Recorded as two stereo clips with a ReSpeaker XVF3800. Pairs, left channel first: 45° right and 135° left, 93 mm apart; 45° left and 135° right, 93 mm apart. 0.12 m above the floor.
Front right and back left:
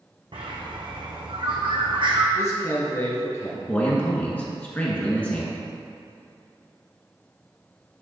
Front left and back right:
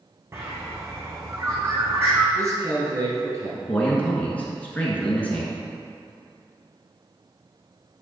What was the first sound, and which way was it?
A bird, 165° left.